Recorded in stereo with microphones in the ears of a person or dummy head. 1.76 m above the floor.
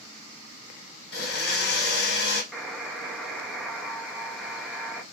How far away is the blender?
About 1.3 m.